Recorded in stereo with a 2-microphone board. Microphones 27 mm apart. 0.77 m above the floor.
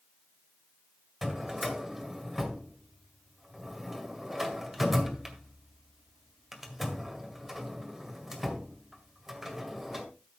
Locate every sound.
1.2 s a drawer: 10° right (ahead or behind), 1.9 m